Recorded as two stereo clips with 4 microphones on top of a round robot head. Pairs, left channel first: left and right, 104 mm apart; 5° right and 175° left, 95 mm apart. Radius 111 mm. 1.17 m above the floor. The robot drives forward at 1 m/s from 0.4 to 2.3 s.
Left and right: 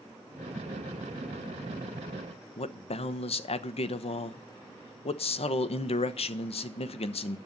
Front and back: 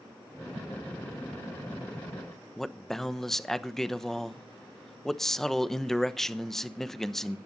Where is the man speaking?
80° left, 1.1 m.